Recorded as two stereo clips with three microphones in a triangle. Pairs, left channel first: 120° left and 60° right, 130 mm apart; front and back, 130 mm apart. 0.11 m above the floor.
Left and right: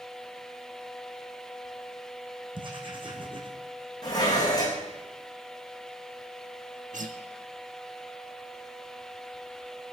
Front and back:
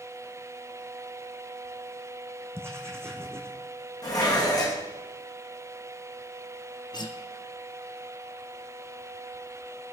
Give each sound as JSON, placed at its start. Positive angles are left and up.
{"t": 2.5, "sound": "writing", "azimuth_deg": -110, "distance_m": 3.0}
{"t": 4.0, "sound": "dishes clattering", "azimuth_deg": 60, "distance_m": 4.5}
{"t": 6.9, "sound": "a guitar", "azimuth_deg": -55, "distance_m": 1.4}